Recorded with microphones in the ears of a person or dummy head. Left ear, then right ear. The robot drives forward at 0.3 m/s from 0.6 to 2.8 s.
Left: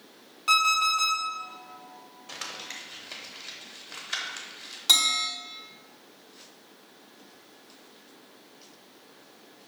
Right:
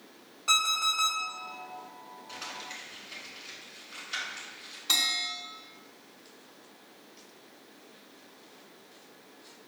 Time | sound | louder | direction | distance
0.5 | an alarm clock | left 4 dB | 20° left (ahead or behind) | 1.3 m
2.3 | crumpling | left 3 dB | 70° left (ahead or behind) | 0.8 m
4.9 | a bell | left 5 dB | 60° left (ahead or behind) | 1.8 m